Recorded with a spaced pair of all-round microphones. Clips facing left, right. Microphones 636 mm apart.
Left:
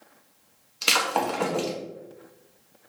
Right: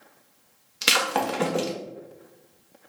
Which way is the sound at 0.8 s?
45° right (ahead or behind).